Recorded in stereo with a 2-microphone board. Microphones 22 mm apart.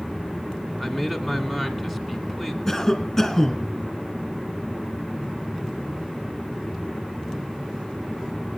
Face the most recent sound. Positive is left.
turn(degrees=10)  # may be behind; listen again after turning